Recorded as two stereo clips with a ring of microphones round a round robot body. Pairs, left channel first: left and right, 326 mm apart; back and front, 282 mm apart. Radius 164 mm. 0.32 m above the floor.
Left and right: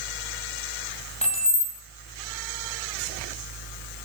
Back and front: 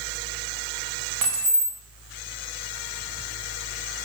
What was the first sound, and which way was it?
Keys jangling, 20° left.